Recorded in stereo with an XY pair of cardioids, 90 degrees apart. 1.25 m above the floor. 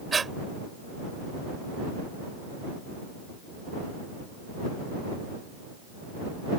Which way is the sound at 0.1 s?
35° right.